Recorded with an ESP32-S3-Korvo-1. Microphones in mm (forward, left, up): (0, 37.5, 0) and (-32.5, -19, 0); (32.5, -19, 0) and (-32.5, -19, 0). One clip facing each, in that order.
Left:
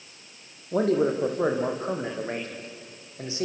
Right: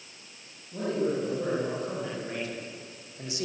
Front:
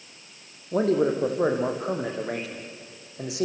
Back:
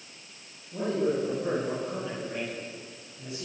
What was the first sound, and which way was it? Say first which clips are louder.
A man speaking: left 6 dB, front 5 dB; 30° left.